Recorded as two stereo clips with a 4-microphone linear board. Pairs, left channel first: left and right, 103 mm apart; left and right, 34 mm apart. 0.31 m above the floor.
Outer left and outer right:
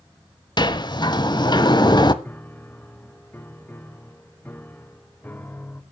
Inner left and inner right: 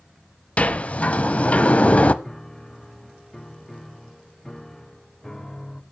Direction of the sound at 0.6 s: 45° left (ahead or behind).